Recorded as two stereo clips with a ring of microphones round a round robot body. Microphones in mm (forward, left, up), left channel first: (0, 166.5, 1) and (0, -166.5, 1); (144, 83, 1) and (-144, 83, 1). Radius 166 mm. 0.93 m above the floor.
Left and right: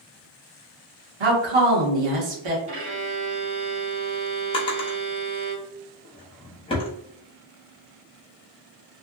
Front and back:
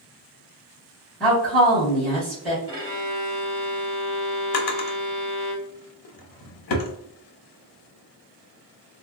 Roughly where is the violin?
Right.